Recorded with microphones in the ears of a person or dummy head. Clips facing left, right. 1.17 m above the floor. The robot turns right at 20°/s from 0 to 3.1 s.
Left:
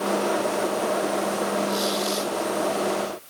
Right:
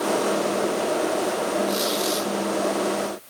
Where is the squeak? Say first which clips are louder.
Right 1 dB; 25° right (ahead or behind), 3.5 m; by 2.3 s 35° right (ahead or behind), 3.5 m.